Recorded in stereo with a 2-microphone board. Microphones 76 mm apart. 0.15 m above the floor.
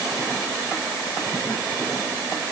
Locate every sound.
Only background noise.